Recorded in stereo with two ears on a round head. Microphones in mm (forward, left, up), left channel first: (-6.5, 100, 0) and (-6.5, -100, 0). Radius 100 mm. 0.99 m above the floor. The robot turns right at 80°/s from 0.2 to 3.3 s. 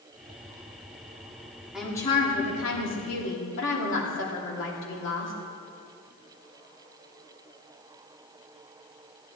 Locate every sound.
1.7 s a woman speaking: 5° right, 2.5 m; by 5.3 s 120° left, 2.5 m